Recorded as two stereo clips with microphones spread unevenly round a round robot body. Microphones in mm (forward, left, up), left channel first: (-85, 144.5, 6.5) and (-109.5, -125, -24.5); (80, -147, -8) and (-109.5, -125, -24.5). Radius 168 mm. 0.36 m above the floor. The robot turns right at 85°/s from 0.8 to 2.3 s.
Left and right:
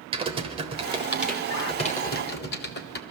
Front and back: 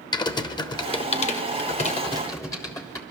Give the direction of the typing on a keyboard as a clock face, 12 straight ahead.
2 o'clock.